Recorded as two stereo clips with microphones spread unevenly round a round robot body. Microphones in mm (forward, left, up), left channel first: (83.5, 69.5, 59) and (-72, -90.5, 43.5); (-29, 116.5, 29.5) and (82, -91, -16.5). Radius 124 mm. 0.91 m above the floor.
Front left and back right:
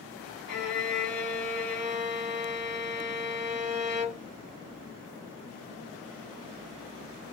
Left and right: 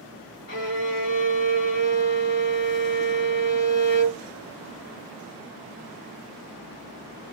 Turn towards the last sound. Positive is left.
turn(degrees=85)